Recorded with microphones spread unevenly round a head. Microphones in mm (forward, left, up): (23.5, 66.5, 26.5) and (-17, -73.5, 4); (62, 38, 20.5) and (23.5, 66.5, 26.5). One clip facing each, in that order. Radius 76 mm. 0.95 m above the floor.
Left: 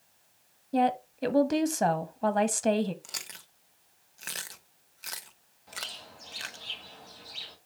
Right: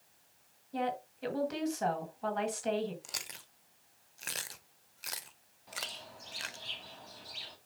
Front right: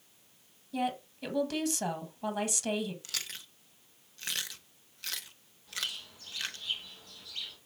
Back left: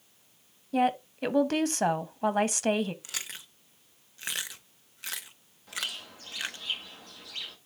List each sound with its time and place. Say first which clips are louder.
0.7 s a woman speaking: left 9 dB, back left 7 dB; 105° left, 1.4 m
3.0 s chewing: left 1 dB, back left 1 dB; 145° left, 0.7 m
5.7 s a bird: left 1 dB, back left 2 dB; 165° left, 2.5 m